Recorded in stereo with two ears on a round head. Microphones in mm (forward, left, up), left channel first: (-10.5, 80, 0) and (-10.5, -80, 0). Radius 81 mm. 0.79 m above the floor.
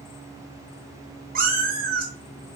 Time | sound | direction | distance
1.4 | a cat meowing | 55° right (ahead or behind) | 1.3 m